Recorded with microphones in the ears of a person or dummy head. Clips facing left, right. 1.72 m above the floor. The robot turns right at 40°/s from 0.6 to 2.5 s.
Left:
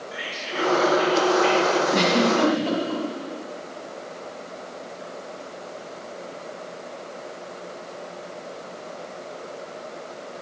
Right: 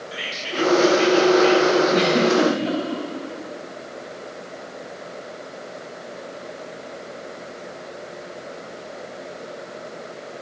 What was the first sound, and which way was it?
Whispering, 55° right.